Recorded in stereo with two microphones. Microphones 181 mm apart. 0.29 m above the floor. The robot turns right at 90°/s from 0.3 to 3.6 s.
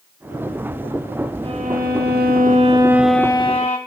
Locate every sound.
1.4 s a violin: 145° right, 0.9 m; by 3.8 s 45° left, 0.9 m